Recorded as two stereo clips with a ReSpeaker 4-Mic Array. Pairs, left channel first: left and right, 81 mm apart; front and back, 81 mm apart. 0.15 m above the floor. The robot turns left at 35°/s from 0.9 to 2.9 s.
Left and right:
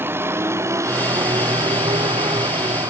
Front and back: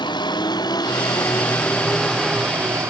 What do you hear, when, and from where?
0.0 s a vehicle: 25° right; by 2.9 s 125° right